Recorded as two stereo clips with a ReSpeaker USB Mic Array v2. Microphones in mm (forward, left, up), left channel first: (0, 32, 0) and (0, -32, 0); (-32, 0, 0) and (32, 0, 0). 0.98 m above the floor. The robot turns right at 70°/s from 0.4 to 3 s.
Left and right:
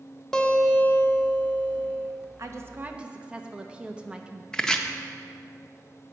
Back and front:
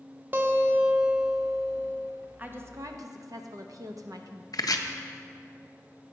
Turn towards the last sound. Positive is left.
turn(degrees=170)